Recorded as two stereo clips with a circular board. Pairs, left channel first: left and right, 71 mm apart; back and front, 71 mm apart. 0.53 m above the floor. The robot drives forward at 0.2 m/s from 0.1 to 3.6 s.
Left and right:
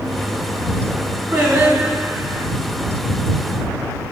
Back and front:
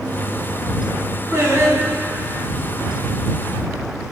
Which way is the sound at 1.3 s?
45° right.